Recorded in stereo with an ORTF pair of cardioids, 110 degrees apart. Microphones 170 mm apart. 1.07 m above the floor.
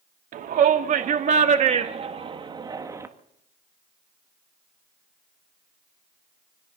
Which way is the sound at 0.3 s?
60° right.